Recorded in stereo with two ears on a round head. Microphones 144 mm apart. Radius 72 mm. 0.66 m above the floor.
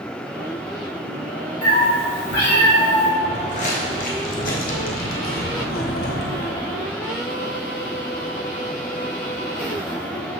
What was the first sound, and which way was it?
A cat meowing, 55° left (ahead or behind).